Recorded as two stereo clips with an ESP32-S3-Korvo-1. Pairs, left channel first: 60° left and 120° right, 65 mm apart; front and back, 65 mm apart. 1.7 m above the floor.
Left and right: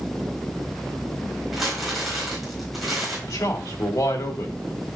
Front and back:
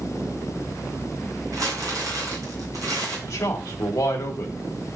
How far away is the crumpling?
About 4 m.